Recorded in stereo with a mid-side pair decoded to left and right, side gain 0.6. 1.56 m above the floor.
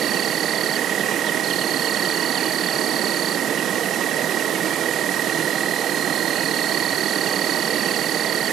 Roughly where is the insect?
Ahead right.